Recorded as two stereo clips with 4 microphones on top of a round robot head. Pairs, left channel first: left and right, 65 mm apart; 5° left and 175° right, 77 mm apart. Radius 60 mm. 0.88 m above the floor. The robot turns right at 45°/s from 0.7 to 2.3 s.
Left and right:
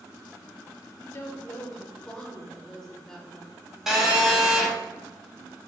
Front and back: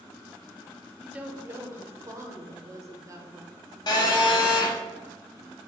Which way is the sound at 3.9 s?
5° right.